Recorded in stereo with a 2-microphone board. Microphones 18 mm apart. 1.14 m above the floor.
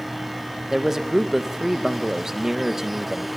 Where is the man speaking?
20° right (ahead or behind), 1.1 m.